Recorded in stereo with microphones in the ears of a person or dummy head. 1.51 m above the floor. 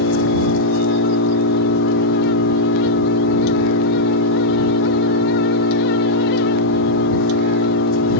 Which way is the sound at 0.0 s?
80° left.